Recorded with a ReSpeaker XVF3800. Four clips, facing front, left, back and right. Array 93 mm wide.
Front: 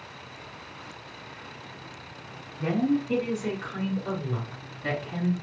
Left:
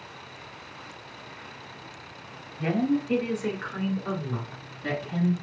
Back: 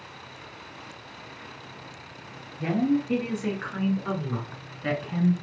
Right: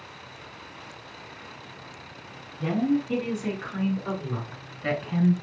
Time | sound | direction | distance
2.6 | a woman speaking | 125° left | 2.5 m